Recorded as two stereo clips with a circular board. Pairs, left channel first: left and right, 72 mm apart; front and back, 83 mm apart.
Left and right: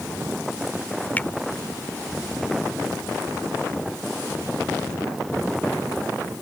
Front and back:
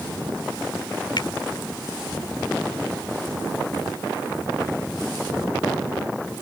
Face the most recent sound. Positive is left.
turn(degrees=25)